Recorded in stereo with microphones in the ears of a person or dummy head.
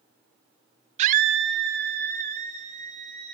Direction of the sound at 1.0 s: 40° right (ahead or behind).